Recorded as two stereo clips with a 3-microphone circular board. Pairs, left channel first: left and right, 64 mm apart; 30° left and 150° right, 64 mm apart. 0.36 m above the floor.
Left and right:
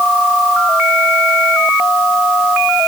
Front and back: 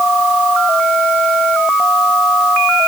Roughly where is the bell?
No bell in this recording.